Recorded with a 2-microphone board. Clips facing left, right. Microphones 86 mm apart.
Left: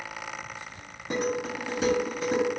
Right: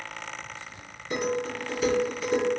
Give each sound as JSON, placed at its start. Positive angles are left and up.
{"t": 1.1, "sound": "dishes clattering", "side_deg": 70, "distance_m": 1.8}